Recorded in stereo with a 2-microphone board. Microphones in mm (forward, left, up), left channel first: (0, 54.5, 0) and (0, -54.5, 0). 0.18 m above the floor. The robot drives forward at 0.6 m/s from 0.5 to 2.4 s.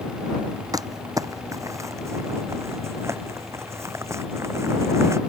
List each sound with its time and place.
0.7 s crumpling: 35° right (ahead or behind); by 5.2 s 25° right (ahead or behind)